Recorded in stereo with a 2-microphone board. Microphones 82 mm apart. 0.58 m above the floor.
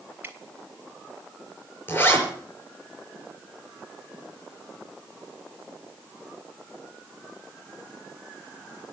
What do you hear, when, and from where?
0.2 s dripping: 25° right (ahead or behind), 1.7 m
1.9 s a zipper: 25° left (ahead or behind), 4.5 m